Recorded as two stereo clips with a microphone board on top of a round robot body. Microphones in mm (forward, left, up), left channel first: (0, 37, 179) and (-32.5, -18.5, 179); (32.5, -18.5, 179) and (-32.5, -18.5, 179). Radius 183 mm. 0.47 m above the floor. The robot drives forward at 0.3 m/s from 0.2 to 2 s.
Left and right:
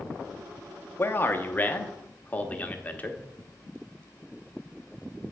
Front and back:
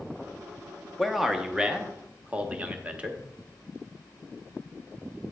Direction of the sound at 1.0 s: 90° left.